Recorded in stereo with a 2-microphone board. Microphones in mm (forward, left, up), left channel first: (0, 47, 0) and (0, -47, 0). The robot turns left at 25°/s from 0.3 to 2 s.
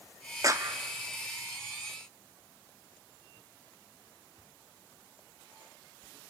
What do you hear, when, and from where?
0.4 s a clap: 35° right (ahead or behind), 1.1 m